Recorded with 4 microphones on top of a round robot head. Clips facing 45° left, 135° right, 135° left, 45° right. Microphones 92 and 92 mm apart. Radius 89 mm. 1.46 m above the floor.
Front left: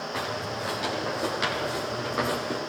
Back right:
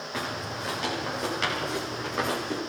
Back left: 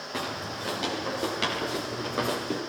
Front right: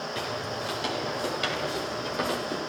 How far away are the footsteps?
About 7.5 m.